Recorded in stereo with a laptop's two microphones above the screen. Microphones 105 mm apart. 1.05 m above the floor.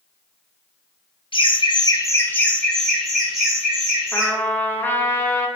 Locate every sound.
1.3 s laughter: 55° left (ahead or behind), 0.6 m; by 4.3 s 5° right (ahead or behind), 2 m
4.1 s a trumpet: 20° left (ahead or behind), 0.6 m